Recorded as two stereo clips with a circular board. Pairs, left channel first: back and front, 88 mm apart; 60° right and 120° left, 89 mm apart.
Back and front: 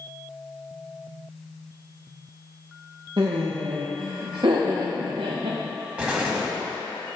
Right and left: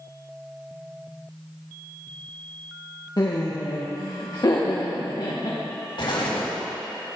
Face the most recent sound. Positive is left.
turn(degrees=-75)